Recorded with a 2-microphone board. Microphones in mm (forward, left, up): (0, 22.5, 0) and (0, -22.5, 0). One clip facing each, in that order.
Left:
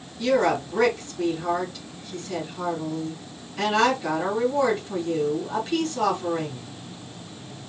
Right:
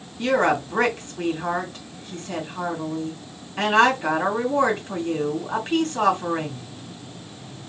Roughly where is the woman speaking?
Right.